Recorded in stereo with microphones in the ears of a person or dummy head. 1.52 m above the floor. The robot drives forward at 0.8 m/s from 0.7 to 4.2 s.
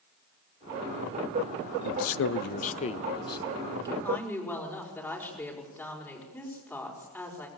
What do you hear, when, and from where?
1.8 s a man speaking: 60° left (ahead or behind), 0.5 m; by 3.9 s 15° left (ahead or behind), 1.6 m
4.0 s a woman speaking: 10° left (ahead or behind), 5.5 m